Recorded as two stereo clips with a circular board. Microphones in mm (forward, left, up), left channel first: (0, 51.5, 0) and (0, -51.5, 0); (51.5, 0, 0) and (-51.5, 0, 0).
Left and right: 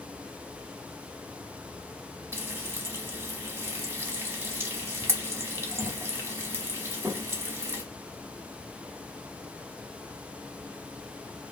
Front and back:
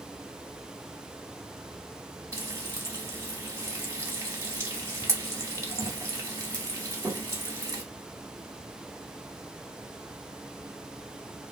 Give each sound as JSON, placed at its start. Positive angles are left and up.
{"t": 2.3, "sound": "frying", "azimuth_deg": -140, "distance_m": 0.9}